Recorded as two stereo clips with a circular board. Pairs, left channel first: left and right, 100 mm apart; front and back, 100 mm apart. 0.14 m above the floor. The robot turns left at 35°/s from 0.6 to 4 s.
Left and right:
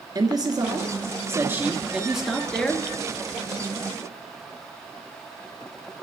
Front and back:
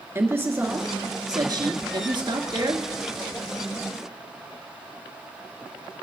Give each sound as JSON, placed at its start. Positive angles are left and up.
{"t": 0.1, "sound": "a man speaking", "azimuth_deg": -120, "distance_m": 1.9}